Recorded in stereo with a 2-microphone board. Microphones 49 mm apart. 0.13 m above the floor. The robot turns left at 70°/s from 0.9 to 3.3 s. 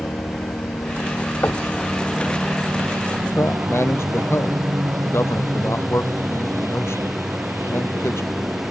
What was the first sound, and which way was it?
A helicopter, 65° left (ahead or behind).